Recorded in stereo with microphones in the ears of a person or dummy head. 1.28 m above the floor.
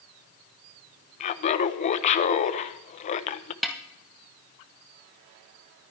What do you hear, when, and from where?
1.2 s laughter: 35° left (ahead or behind), 0.8 m
3.6 s a snare drum: centre (ahead or behind), 1.1 m